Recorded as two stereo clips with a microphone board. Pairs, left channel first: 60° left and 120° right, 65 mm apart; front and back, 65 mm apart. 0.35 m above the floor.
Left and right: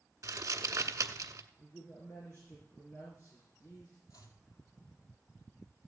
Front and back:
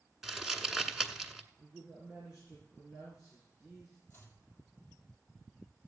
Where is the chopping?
55° left, 2.5 m.